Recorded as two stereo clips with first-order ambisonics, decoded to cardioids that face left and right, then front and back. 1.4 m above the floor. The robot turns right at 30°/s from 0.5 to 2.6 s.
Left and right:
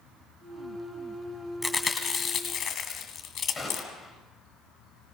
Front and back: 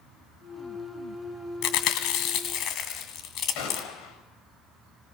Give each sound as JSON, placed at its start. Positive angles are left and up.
{"t": 1.6, "sound": "chewing", "azimuth_deg": 5, "distance_m": 2.0}
{"t": 3.5, "sound": "a gunshot", "azimuth_deg": 5, "distance_m": 6.5}